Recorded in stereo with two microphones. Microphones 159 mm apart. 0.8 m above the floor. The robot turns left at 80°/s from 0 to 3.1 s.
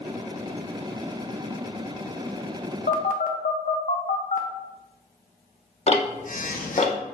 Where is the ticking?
45° left (ahead or behind), 0.7 m.